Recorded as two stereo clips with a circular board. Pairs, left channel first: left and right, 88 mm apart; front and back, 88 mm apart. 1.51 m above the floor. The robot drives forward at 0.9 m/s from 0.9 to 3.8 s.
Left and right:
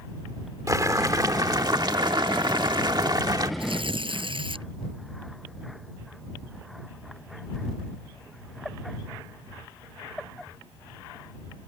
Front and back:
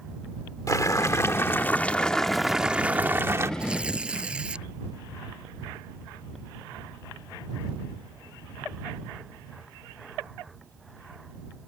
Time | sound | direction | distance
0.7 | boiling | 45° right | ?
3.6 | tearing paper | 100° right | ?